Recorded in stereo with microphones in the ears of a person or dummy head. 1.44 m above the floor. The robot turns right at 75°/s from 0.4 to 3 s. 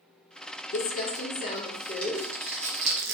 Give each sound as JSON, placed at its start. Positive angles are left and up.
{"t": 0.7, "sound": "crumpling", "side_deg": 60, "distance_m": 0.7}